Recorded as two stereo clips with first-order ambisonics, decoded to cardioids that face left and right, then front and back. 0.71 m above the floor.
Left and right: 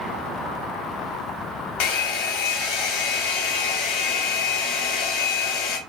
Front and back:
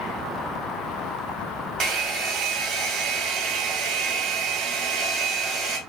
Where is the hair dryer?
110° left, 0.9 m.